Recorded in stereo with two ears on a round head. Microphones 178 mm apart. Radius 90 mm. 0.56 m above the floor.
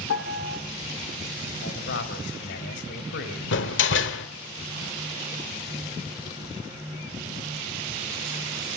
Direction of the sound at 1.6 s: 65° left (ahead or behind).